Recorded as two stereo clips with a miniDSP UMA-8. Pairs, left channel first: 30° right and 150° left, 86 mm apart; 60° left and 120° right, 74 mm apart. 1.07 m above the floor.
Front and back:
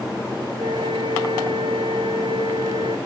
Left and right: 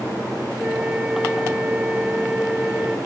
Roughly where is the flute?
Behind.